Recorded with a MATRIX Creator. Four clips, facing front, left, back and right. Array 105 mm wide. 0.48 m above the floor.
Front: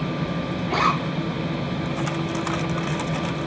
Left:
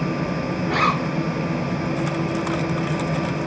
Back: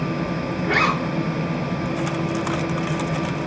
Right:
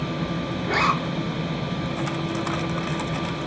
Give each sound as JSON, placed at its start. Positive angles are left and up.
{"t": 0.6, "sound": "a zipper", "azimuth_deg": -170, "distance_m": 8.5}